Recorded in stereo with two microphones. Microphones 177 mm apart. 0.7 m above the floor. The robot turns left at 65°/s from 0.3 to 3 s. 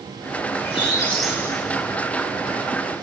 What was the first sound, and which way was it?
A squeak, 45° left.